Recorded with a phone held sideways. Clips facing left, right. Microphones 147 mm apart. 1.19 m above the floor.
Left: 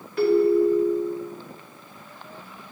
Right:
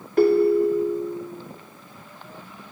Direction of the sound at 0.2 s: 50° right (ahead or behind).